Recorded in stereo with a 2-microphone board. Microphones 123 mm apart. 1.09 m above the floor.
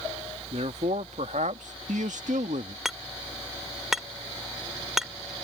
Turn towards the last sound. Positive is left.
turn(degrees=-5)  # may be behind; listen again after turning